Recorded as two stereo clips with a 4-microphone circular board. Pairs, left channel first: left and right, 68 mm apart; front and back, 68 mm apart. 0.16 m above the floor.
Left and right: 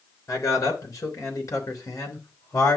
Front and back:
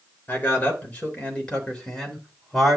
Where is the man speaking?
60° left, 4 m; by 2.8 s 90° left, 3.5 m.